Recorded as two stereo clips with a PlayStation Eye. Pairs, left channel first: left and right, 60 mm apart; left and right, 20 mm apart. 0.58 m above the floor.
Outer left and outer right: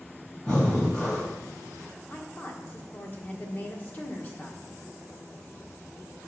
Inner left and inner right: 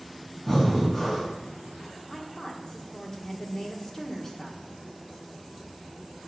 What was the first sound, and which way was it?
Breathing, 25° left (ahead or behind).